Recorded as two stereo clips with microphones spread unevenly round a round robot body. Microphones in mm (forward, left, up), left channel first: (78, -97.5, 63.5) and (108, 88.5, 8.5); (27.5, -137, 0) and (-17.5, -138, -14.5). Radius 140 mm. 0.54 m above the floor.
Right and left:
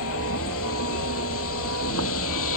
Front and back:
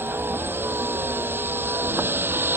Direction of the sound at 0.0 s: 140° right.